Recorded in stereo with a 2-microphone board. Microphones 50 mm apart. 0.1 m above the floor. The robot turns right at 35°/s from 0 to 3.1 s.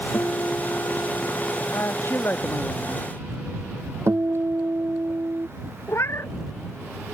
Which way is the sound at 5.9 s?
60° left (ahead or behind).